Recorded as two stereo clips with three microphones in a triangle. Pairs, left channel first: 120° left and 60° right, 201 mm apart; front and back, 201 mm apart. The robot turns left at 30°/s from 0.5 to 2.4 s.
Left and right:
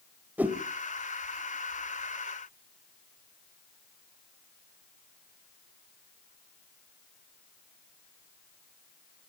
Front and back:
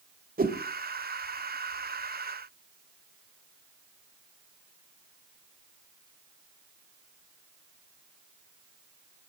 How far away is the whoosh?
About 1.5 m.